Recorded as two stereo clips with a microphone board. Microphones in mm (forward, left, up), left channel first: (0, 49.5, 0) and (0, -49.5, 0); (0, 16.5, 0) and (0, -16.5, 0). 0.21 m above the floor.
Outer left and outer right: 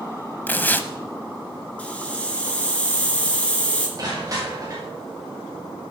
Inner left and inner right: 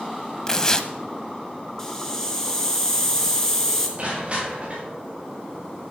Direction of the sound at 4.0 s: 40° right (ahead or behind).